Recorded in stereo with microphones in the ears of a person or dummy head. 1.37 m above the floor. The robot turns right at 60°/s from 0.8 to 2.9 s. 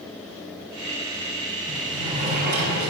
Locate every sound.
1.7 s a sliding door: 175° right, 6 m; by 2.9 s 105° right, 6 m